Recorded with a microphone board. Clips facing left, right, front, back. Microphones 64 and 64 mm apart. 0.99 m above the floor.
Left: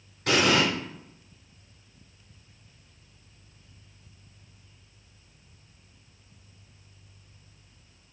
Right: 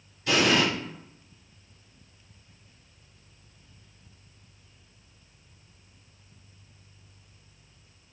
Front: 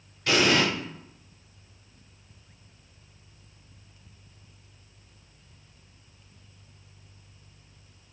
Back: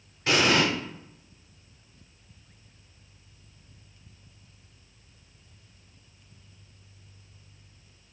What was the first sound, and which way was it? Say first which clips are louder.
An explosion: even, even; 115° left.